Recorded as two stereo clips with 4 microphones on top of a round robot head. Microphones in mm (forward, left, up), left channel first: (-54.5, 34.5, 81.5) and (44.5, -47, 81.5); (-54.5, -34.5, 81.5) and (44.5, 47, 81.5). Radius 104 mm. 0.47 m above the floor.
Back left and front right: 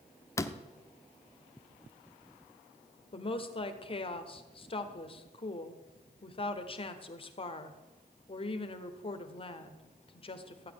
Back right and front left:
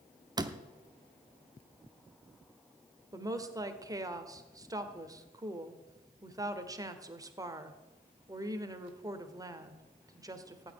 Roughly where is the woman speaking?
Left.